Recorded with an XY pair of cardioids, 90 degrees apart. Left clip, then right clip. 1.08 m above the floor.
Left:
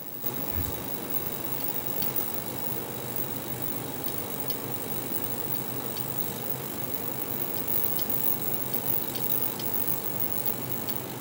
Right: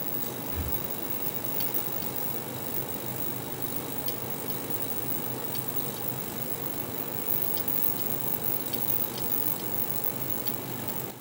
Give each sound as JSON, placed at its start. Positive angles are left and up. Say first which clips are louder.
{"t": 0.5, "sound": "breathing", "louder": "left 1 dB", "azimuth_deg": -15, "distance_m": 1.8}